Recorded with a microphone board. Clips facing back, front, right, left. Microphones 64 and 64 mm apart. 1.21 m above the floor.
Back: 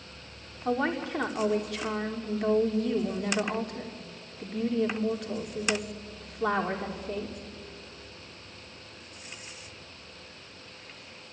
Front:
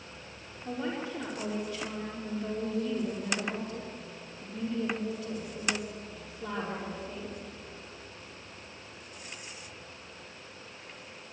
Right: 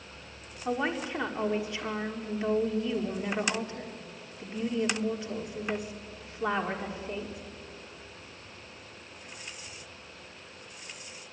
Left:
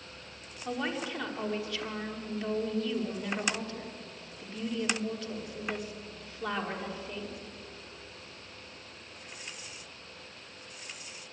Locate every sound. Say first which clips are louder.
0.7 s a woman speaking: back 6 dB, right 3 dB; 160° right, 3 m